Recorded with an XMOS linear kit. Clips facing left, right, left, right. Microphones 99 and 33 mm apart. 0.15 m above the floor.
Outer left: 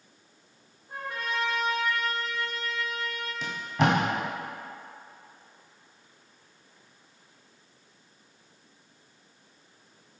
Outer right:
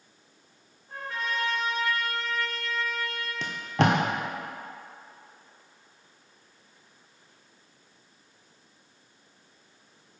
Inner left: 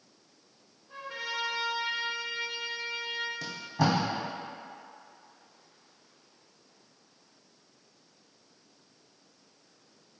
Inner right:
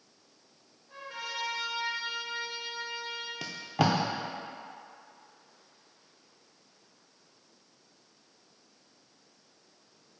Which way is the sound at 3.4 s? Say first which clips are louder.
Outer right 1 dB, inner right 2 dB; 80° right.